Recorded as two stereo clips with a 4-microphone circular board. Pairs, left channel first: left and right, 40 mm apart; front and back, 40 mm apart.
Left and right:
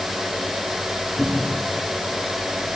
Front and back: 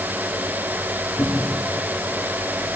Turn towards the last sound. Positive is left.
turn(degrees=15)